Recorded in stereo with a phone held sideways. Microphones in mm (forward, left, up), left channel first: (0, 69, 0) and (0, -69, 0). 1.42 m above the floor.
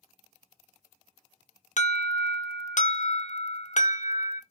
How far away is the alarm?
About 0.6 m.